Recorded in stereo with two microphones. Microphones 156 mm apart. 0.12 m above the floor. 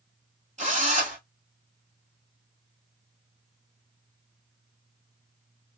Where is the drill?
45° right (ahead or behind), 1.6 m.